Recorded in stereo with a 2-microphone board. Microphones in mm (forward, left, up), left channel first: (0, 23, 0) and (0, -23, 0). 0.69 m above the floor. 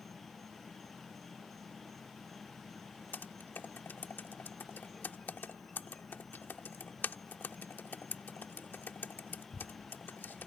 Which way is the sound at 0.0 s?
5° left (ahead or behind).